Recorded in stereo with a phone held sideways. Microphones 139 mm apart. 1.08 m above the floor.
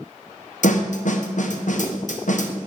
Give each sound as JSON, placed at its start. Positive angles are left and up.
{"t": 0.6, "sound": "a snare drum", "side_deg": 60, "distance_m": 0.8}